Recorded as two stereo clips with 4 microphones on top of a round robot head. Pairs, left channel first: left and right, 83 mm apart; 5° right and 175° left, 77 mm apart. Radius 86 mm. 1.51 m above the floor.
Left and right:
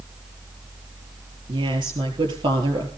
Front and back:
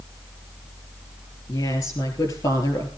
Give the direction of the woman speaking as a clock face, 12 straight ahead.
2 o'clock.